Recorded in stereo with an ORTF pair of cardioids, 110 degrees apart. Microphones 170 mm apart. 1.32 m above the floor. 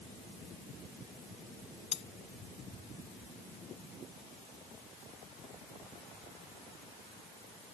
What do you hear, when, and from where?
1.9 s cutlery clinking: 40° left